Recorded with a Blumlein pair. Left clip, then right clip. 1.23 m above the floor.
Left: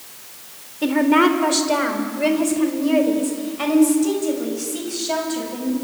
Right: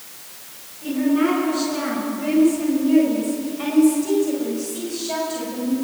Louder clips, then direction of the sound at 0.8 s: Left 5 dB; 50° left.